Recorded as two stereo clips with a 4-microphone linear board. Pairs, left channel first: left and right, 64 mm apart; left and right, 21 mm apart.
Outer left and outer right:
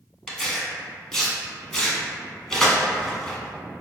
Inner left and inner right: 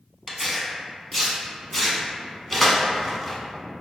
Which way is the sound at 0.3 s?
5° left (ahead or behind).